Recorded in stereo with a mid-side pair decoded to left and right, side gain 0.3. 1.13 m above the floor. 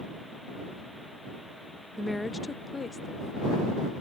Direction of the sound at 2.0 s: Straight ahead.